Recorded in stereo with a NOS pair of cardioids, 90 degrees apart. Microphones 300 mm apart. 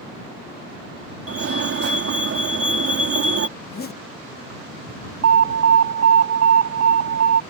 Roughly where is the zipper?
Ahead left.